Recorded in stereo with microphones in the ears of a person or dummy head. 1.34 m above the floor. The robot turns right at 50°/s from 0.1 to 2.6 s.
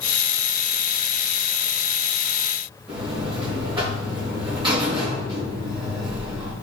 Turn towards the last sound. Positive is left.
turn(degrees=-25)  # may be behind; listen again after turning